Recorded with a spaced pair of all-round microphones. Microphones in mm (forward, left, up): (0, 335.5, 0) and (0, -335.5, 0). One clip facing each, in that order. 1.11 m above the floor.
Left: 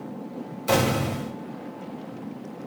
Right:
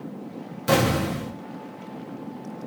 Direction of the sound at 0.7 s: 45° right (ahead or behind).